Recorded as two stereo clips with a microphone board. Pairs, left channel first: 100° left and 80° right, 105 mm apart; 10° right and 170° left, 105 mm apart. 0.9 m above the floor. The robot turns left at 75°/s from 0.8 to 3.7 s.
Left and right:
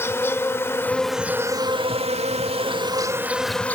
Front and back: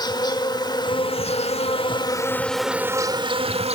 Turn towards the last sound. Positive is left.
turn(degrees=175)